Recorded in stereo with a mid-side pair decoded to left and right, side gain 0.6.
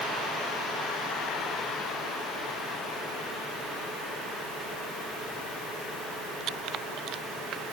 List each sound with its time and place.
Only background noise.